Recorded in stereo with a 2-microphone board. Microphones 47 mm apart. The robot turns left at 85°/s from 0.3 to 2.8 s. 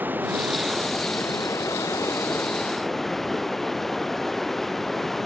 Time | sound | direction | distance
0.0 | running water | 145° right | ?